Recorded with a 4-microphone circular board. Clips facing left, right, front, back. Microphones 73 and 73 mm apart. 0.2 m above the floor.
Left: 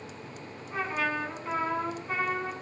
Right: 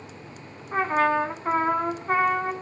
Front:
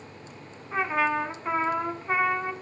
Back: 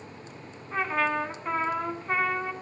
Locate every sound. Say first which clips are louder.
0.7 s a trumpet: right 9 dB, front 2 dB; 80° right, 1.4 m